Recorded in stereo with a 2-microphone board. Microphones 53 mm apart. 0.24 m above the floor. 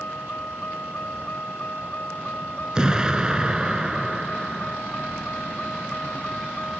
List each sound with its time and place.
0.0 s a vehicle: 35° left (ahead or behind); by 6.8 s 20° left (ahead or behind)
2.8 s an explosion: 15° right (ahead or behind)